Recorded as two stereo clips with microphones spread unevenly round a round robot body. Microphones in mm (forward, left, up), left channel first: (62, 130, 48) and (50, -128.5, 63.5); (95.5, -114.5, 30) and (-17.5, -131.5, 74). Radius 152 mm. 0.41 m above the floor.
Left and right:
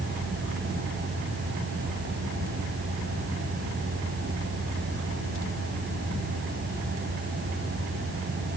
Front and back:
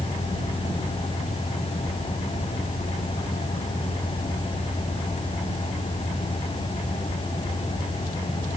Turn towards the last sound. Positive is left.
No sound to turn to.